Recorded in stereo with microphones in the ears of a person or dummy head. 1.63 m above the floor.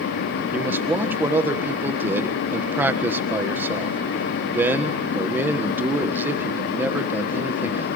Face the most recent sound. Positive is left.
turn(degrees=-15)  # may be behind; listen again after turning